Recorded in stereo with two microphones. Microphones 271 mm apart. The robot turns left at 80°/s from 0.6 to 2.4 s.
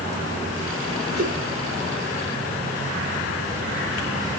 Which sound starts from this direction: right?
A whoosh, at 1.1 s.